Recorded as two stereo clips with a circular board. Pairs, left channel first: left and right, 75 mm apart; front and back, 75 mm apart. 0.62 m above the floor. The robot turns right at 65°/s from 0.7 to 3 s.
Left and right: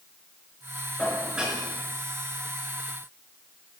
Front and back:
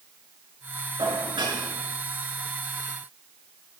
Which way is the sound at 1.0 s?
165° left.